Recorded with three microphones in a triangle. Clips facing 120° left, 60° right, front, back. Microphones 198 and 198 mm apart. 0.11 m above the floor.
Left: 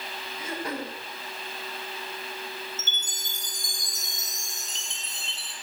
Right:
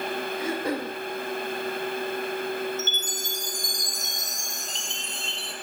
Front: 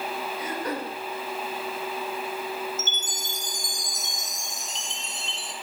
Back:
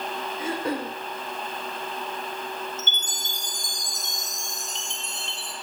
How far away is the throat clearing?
About 6.5 m.